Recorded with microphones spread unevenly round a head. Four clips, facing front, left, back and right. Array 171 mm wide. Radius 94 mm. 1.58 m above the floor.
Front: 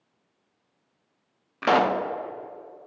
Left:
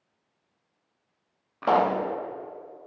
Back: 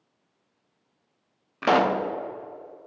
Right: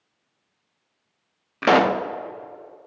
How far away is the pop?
About 0.6 m.